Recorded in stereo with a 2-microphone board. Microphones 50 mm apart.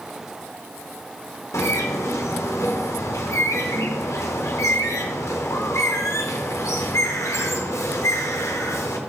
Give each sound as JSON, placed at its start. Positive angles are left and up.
{"t": 1.5, "sound": "a bird", "side_deg": 80, "distance_m": 1.0}